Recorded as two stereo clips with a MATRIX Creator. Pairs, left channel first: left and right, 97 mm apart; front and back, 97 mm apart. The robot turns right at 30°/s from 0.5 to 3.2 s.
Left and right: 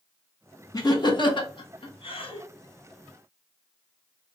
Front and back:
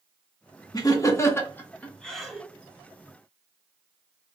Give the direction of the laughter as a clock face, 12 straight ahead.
11 o'clock.